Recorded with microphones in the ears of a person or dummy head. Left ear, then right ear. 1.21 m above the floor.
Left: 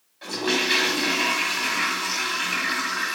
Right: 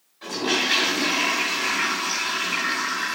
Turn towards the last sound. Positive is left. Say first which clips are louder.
# even
turn(degrees=10)  # may be behind; listen again after turning